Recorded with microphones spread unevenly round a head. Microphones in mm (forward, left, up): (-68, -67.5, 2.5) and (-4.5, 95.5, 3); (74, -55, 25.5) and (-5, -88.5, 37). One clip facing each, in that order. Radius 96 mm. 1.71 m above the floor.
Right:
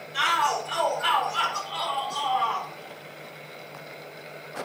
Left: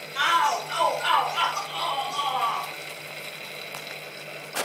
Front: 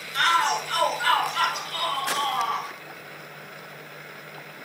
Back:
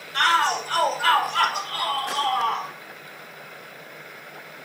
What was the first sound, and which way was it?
A shout, 115° right.